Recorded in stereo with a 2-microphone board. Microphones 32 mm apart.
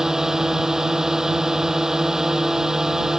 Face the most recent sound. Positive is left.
turn(degrees=-20)  # may be behind; listen again after turning